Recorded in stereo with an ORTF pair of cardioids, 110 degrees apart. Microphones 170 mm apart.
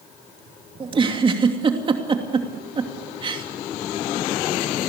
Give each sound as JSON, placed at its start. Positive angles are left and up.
{"t": 0.8, "sound": "a giggle", "azimuth_deg": -30, "distance_m": 3.0}